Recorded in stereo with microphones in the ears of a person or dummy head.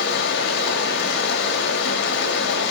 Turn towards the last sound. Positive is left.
turn(degrees=65)  # may be behind; listen again after turning